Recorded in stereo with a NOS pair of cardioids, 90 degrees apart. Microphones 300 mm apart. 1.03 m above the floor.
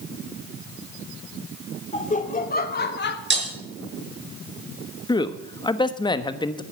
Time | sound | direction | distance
1.9 | laughter | 25° left | 2.5 m
3.3 | breaking glass | 35° right | 5 m
5.1 | a man speaking | 15° left | 1.2 m